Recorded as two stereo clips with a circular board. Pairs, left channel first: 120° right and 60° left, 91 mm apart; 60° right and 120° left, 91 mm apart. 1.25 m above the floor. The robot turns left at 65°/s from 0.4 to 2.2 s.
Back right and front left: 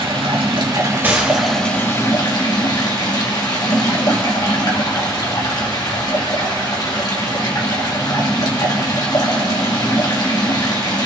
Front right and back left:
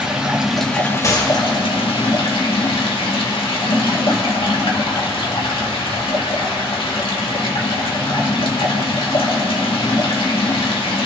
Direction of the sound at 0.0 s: 40° left.